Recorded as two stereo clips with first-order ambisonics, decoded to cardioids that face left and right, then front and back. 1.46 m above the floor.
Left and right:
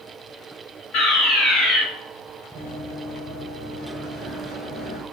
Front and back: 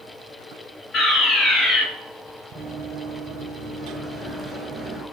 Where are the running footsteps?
100° right, 1.6 m; by 5.0 s 90° left, 1.5 m.